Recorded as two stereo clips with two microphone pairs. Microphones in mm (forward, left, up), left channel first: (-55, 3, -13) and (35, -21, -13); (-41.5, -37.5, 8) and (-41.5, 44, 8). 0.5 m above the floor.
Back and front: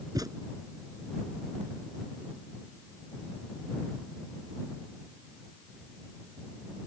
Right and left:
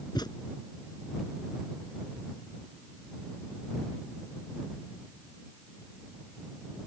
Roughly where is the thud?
Ahead right.